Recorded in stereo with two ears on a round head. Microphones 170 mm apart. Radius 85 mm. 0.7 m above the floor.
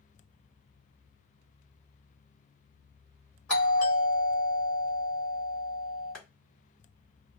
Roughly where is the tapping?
Centre.